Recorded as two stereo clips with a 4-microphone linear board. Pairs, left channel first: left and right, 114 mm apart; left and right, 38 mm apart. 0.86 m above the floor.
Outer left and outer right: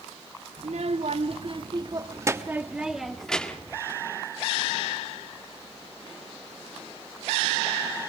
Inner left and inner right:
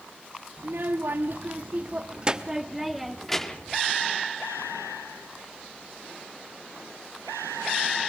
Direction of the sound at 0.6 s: 70° right (ahead or behind).